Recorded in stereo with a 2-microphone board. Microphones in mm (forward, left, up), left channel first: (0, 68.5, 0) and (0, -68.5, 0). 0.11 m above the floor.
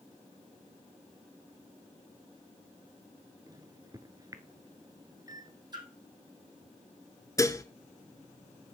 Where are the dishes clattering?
25° left (ahead or behind), 0.8 m.